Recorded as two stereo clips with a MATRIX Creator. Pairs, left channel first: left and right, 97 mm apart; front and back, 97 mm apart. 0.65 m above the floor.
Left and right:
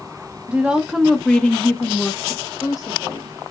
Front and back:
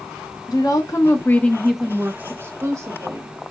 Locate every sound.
0.5 s a woman speaking: 20° right, 0.8 m; by 3.4 s 135° left, 1.2 m